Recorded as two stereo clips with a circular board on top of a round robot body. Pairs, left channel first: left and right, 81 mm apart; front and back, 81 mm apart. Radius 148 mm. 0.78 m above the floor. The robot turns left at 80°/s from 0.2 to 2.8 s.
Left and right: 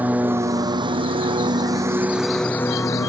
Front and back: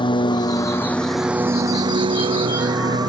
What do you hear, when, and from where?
0.0 s a lawn mower: 20° right; by 3.1 s 140° left